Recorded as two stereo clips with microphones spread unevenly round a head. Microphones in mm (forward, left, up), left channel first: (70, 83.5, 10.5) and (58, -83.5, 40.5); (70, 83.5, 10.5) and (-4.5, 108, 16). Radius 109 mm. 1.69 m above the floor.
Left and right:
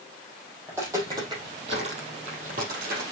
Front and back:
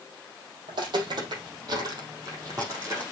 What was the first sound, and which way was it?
Footsteps, 170° right.